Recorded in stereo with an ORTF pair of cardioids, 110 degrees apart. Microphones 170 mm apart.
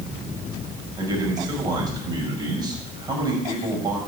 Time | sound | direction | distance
1.0 | a man speaking | 25° right | 6.5 m